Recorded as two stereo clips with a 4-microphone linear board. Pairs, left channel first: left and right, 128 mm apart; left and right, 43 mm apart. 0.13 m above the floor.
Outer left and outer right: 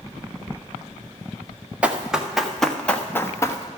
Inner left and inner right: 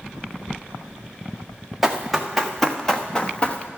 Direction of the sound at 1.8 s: 10° right (ahead or behind).